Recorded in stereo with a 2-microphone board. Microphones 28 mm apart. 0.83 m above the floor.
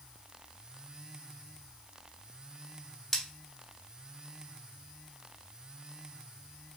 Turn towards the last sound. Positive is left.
turn(degrees=15)  # may be behind; listen again after turning